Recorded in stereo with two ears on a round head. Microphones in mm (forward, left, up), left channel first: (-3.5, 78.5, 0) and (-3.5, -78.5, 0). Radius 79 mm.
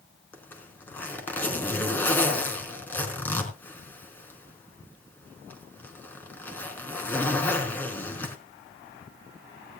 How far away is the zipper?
About 4.5 m.